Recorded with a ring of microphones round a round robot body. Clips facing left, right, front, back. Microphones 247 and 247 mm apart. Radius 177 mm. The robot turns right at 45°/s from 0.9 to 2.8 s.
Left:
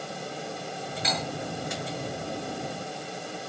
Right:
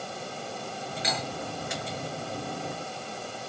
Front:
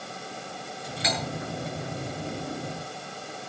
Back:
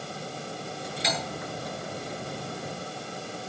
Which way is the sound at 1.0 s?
10° right.